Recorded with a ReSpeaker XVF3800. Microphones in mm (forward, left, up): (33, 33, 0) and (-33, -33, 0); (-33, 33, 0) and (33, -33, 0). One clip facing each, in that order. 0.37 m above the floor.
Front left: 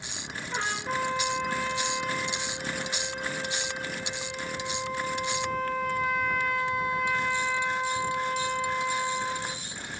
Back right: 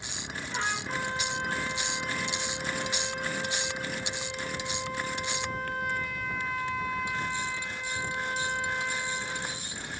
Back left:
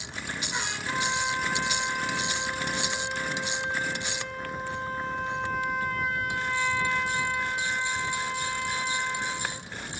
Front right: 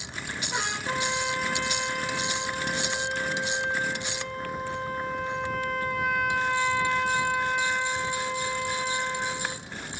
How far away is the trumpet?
About 8 m.